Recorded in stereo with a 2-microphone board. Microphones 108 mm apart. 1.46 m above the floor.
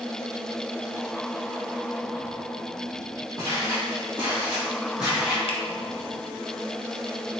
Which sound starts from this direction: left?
A finger snap, at 5.5 s.